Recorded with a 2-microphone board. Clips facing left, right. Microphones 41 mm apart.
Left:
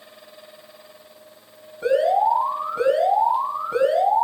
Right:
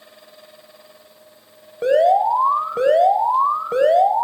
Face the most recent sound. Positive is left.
turn(degrees=-60)  # may be behind; listen again after turning